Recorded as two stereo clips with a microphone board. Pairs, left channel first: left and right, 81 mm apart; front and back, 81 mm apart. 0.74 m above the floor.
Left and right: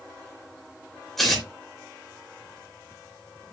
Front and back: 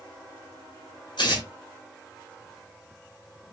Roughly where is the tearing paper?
Ahead.